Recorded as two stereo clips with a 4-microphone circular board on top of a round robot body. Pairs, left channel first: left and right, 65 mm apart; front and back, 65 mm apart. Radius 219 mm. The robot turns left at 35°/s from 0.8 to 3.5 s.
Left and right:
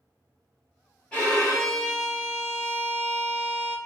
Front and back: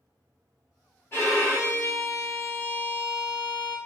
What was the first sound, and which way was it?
A violin, 25° left.